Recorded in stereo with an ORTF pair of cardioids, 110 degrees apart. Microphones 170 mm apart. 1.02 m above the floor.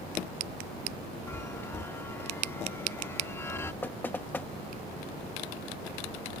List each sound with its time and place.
1.3 s a chime: 15° left
3.8 s knocking: 10° left